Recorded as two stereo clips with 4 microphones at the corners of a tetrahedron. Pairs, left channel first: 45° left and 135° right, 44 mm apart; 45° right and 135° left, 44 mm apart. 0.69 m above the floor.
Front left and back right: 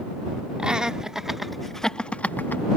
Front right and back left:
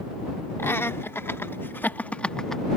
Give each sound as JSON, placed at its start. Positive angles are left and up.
{"t": 0.6, "sound": "laughter", "azimuth_deg": -65}